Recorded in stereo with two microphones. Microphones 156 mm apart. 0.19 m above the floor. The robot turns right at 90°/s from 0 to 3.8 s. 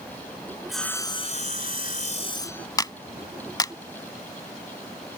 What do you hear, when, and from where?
0.7 s sawing: 5° right; by 2.7 s 175° left
2.8 s a clap: 25° left (ahead or behind); by 3.7 s 20° left (ahead or behind)